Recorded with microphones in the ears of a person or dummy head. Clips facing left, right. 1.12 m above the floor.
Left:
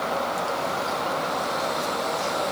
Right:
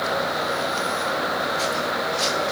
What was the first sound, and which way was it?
Only background noise.